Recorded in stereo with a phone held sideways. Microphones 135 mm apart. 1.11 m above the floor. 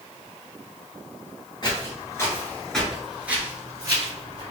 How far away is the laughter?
I don't hear laughter.